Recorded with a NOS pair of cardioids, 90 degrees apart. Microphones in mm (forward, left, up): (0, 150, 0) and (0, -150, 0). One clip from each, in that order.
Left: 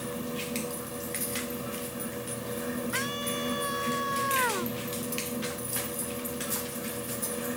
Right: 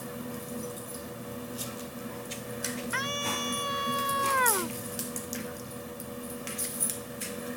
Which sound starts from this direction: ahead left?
A fan, at 0.0 s.